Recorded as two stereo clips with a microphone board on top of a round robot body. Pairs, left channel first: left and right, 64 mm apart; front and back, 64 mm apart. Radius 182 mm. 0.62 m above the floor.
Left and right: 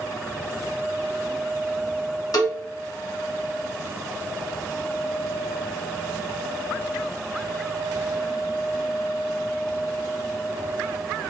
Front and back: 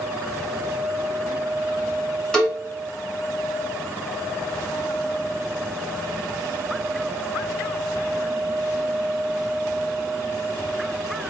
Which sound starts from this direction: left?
A cowbell, at 2.3 s.